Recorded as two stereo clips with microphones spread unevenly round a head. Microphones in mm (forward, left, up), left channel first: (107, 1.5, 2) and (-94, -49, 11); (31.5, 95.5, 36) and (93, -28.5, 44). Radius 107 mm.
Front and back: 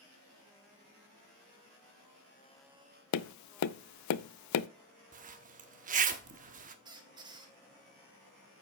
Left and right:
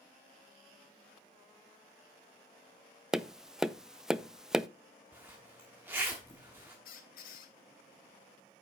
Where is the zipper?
135° right, 1.0 m.